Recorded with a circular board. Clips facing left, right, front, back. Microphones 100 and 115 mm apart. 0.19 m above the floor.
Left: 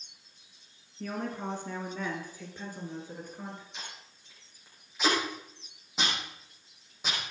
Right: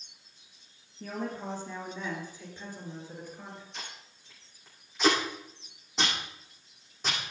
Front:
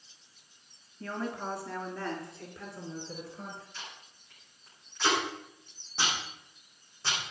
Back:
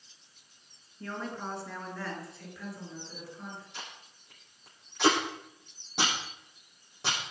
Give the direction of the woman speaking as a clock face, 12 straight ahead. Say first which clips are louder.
Left 1 dB, front 2 dB; 9 o'clock.